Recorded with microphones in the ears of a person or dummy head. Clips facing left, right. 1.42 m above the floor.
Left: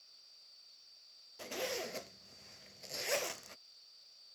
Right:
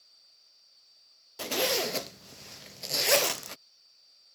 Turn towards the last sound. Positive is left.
turn(degrees=-70)  # may be behind; listen again after turning